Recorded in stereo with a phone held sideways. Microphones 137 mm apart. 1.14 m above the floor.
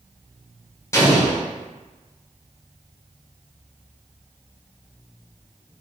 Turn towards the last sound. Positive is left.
turn(degrees=20)  # may be behind; listen again after turning